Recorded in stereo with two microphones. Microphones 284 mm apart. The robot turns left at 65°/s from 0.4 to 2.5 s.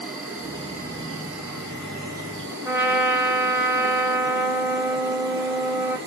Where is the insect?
5° right, 2 m; by 6.1 s 140° right, 2 m.